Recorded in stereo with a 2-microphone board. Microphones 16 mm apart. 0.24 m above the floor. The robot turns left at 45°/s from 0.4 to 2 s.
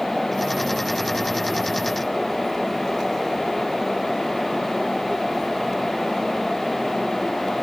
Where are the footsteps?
No footsteps in this recording.